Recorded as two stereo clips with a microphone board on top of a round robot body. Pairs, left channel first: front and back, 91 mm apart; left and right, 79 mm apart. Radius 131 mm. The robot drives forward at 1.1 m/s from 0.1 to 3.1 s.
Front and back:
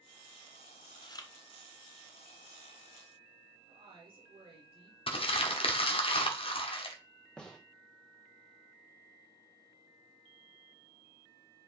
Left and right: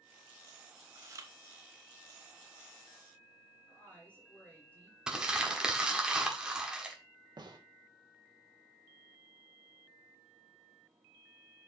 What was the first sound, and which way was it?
Chewing, 35° right.